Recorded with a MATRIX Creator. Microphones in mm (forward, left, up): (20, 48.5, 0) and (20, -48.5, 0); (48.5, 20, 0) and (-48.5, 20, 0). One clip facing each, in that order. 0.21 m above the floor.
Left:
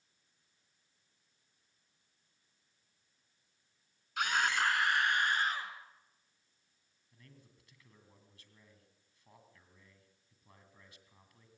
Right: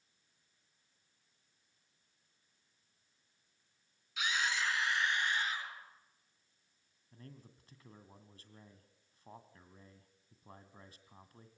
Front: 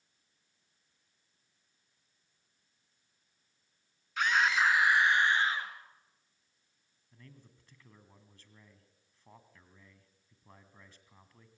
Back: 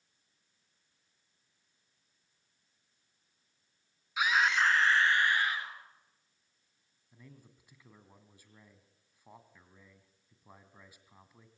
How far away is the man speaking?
About 2 m.